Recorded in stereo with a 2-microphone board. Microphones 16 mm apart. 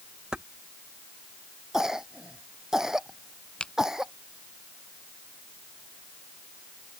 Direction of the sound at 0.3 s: 50° right (ahead or behind).